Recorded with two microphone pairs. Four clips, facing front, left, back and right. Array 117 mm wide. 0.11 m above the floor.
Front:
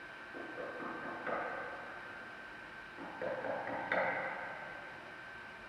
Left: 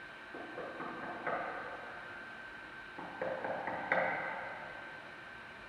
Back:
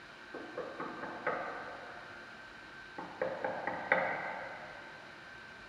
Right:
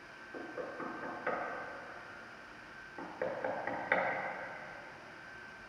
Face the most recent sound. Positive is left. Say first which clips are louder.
# right 2 dB, back 2 dB
turn(degrees=-165)